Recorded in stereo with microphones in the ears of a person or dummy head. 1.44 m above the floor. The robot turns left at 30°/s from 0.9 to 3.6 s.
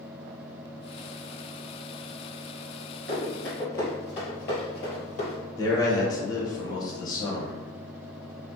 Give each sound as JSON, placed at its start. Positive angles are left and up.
{"t": 3.1, "sound": "running footsteps", "side_deg": -5, "distance_m": 1.5}
{"t": 5.6, "sound": "a man speaking", "side_deg": 20, "distance_m": 1.0}